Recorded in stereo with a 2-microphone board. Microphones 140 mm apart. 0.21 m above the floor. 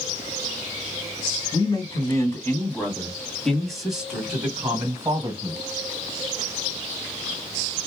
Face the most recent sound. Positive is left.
turn(degrees=-30)  # may be behind; listen again after turning